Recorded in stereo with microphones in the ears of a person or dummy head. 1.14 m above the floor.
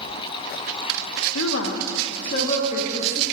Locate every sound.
1.4 s a woman speaking: 70° left (ahead or behind), 0.6 m; by 3.2 s 40° left (ahead or behind), 1.5 m